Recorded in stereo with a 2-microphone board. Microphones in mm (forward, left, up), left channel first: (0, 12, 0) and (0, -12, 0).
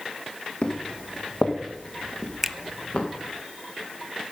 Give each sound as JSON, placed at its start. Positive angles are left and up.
{"t": 0.6, "sound": "footsteps", "side_deg": 55, "distance_m": 2.0}
{"t": 2.4, "sound": "a finger snap", "side_deg": -10, "distance_m": 0.5}